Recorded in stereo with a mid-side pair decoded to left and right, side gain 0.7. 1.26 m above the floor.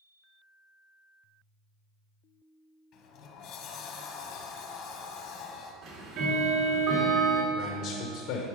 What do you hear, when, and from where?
2.9 s a sliding door: 60° left, 1.1 m
5.8 s ticking: 60° right, 2 m
7.5 s a man speaking: 70° left, 1.0 m